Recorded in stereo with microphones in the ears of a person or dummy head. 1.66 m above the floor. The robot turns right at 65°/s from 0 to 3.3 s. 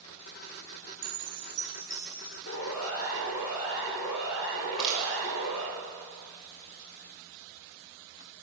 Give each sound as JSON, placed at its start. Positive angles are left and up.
{"t": 1.0, "sound": "a chime", "azimuth_deg": -30, "distance_m": 2.0}
{"t": 2.5, "sound": "a siren", "side_deg": 85, "distance_m": 5.5}
{"t": 4.6, "sound": "crushing", "side_deg": 10, "distance_m": 5.5}